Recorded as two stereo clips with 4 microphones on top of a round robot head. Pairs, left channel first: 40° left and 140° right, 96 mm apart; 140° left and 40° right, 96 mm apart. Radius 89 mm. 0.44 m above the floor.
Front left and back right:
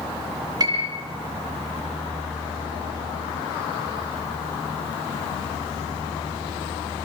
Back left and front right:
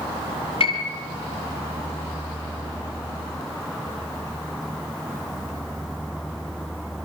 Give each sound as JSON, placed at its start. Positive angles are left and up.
{"t": 0.6, "sound": "a piano", "azimuth_deg": 170, "distance_m": 5.0}